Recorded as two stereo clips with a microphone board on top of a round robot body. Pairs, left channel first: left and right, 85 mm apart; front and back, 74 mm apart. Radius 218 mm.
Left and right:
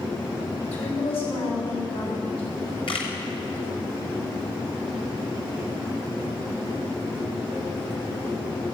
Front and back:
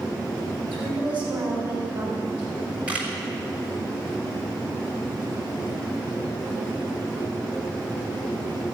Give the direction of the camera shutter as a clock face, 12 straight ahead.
8 o'clock.